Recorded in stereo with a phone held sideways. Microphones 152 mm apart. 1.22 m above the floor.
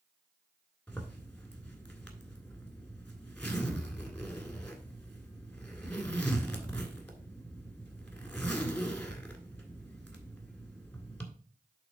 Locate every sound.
0.9 s a zipper: 5° left (ahead or behind), 1.7 m